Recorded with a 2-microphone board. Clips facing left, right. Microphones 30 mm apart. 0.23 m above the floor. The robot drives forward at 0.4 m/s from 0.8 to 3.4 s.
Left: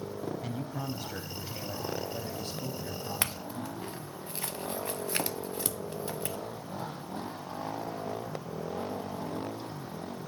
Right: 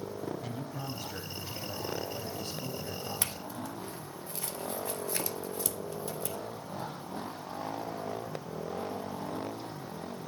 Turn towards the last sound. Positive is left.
turn(degrees=40)  # may be behind; listen again after turning